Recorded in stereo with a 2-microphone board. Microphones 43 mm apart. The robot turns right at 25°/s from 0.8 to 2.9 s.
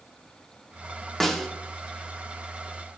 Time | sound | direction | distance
1.2 | a snare drum | 10° left (ahead or behind) | 0.7 m